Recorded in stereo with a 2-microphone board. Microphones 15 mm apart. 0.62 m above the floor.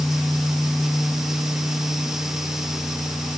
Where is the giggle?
No giggle in this recording.